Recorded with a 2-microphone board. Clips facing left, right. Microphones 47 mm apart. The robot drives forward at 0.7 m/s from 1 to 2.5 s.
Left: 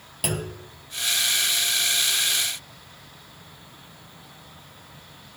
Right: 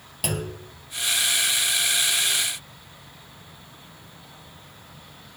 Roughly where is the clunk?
Centre.